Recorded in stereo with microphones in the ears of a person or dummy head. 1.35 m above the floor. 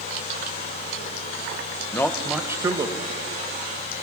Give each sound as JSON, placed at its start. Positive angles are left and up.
{"t": 1.9, "sound": "a man speaking", "side_deg": 15, "distance_m": 0.7}